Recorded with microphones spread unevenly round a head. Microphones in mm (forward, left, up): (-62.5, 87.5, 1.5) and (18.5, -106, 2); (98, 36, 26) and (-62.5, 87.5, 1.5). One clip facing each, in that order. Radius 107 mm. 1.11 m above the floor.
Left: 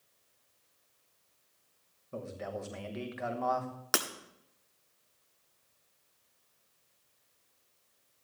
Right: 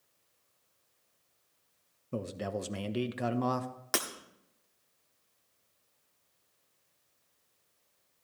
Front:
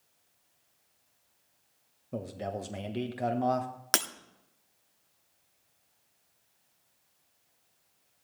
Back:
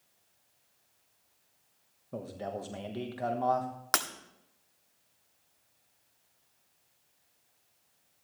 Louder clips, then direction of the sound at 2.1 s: Right 4 dB, front 2 dB; 95° right.